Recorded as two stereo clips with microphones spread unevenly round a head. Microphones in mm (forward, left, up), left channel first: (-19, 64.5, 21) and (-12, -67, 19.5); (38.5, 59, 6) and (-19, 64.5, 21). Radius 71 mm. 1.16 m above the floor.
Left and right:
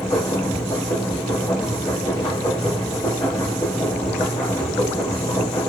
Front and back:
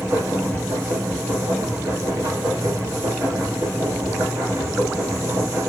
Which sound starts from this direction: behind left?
A machine running, at 0.0 s.